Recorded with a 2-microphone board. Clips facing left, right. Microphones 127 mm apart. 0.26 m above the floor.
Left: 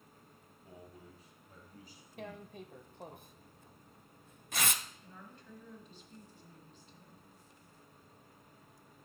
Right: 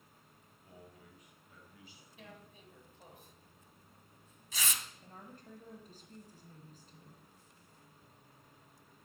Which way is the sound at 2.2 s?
60° left (ahead or behind).